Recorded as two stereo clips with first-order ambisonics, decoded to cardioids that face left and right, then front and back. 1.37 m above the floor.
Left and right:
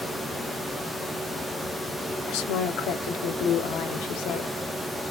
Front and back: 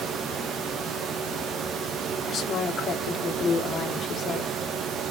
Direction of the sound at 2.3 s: 65° left.